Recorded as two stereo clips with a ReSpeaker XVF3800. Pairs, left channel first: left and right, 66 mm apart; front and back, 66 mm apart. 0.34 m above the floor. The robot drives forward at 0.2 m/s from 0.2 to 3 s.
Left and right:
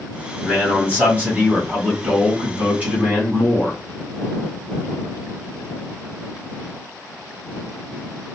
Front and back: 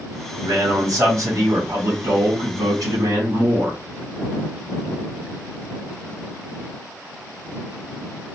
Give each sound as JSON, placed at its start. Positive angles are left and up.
{"t": 0.4, "sound": "a man speaking", "azimuth_deg": -150, "distance_m": 1.9}